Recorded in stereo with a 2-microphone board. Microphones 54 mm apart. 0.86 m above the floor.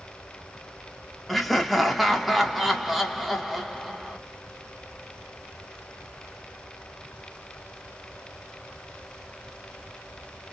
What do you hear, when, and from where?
1.3 s laughter: centre (ahead or behind), 1.1 m